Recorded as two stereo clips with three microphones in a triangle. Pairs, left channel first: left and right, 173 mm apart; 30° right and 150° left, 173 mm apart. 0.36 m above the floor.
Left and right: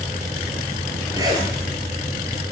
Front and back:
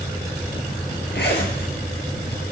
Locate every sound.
1.1 s a zipper: 20° right, 4 m